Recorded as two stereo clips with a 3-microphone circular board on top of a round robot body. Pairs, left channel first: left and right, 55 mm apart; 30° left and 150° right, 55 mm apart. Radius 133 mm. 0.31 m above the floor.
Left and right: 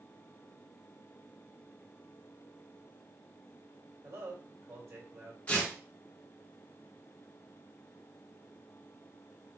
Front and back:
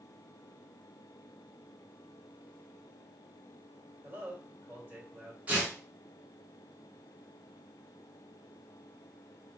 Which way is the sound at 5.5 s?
150° left.